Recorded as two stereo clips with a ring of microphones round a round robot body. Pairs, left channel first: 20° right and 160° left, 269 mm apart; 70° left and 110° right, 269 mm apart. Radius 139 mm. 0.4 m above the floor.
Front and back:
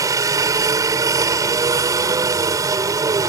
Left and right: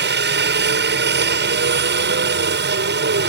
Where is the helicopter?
130° right.